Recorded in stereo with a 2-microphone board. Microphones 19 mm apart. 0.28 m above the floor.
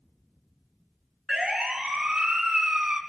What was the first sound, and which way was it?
A siren, 60° right (ahead or behind).